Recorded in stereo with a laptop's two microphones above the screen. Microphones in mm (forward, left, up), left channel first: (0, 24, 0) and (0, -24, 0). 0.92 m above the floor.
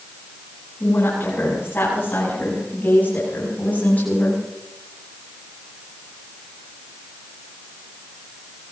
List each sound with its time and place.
0.8 s a woman speaking: 45° left (ahead or behind), 8 m; by 4.4 s 30° left (ahead or behind), 6 m